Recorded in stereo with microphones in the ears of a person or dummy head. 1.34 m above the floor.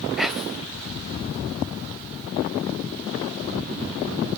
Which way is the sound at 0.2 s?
Centre (ahead or behind).